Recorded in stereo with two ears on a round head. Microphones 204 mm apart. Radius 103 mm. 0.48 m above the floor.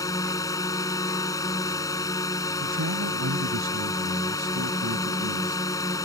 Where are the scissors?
No scissors in this recording.